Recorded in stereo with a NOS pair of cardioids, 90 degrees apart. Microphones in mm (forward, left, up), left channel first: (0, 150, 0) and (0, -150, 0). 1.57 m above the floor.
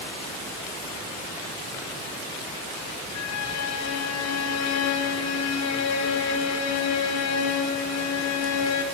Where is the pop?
No pop in this recording.